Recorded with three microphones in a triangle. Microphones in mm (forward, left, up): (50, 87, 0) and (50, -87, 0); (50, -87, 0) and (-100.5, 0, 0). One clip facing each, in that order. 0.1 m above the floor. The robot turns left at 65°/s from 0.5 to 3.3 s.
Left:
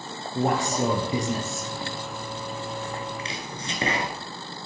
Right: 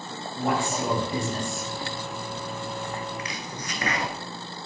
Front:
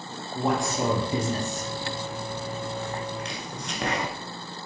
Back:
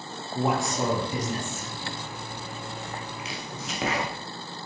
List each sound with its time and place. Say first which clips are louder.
0.3 s a man speaking: left 2 dB, even; 70° left, 2 m; by 1.7 s 10° right, 2 m
3.2 s chopping: even, front 2 dB; 70° left, 1.4 m; by 4.1 s 65° left, 1.4 m